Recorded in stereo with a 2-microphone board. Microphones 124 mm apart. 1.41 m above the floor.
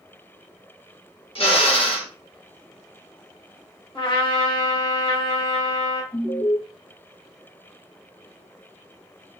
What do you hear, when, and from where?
1.4 s a drill: 50° left (ahead or behind), 0.9 m
4.0 s a trumpet: 40° left (ahead or behind), 0.9 m
6.1 s an alarm: 80° left, 1.5 m